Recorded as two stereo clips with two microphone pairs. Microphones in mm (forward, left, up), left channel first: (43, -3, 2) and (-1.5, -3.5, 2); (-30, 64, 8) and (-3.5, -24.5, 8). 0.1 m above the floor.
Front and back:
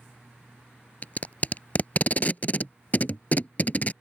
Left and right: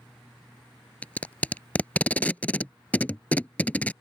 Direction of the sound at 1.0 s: 40° left.